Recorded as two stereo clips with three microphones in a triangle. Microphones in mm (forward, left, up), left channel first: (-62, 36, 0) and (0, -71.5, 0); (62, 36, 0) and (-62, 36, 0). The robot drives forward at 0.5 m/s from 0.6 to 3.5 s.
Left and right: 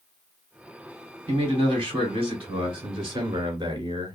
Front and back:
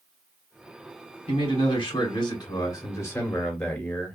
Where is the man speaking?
25° right, 1.7 m; by 4.2 s 75° right, 1.1 m.